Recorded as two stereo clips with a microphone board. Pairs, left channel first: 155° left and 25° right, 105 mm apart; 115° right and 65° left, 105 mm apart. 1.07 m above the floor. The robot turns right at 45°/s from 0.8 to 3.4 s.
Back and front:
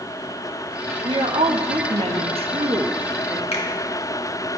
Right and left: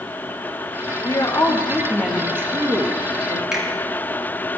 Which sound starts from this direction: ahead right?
A woman speaking, at 1.0 s.